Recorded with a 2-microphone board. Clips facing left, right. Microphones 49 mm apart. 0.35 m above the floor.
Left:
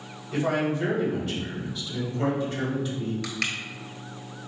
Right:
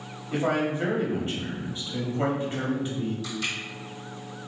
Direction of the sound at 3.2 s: 80° left.